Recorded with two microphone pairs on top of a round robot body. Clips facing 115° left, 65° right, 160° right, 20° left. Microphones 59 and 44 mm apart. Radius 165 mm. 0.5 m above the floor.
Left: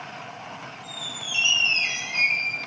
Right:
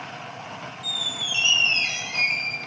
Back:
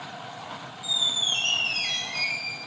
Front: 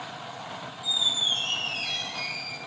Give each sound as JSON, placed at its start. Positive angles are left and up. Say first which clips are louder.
{"t": 0.8, "sound": "a squeak", "louder": "right 4 dB, even", "azimuth_deg": 175, "distance_m": 1.6}